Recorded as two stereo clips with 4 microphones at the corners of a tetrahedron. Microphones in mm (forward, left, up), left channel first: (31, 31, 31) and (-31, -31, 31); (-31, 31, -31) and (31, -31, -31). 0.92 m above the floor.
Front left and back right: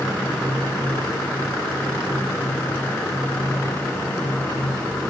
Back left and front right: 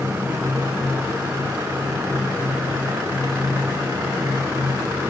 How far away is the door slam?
I don't hear a door slam.